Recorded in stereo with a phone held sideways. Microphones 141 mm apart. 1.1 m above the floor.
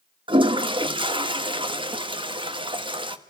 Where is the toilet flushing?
35° right (ahead or behind), 1.2 m.